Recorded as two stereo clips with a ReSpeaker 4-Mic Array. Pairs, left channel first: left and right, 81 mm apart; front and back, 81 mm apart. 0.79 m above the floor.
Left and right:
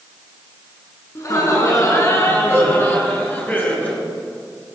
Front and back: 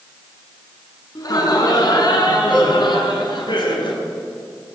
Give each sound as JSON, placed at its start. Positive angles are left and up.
{"t": 1.1, "sound": "laughter", "azimuth_deg": 40, "distance_m": 8.0}